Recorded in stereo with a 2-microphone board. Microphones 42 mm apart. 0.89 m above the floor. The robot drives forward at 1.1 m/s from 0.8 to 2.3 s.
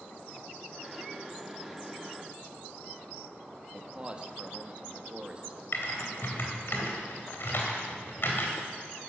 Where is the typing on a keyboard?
60° left (ahead or behind), 3.5 m.